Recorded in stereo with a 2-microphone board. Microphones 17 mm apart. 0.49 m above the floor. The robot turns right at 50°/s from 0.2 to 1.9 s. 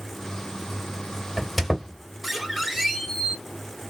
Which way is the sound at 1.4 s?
15° left (ahead or behind).